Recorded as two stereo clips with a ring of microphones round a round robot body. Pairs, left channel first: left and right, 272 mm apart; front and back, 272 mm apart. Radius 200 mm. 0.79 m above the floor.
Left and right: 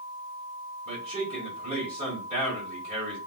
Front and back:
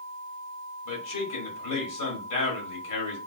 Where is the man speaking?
5° right, 2 m.